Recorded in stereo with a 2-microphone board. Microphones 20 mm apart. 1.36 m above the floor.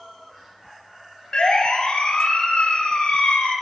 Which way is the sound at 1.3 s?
45° left (ahead or behind).